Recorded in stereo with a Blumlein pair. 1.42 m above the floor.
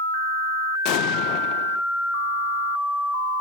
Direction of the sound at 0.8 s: 40° left.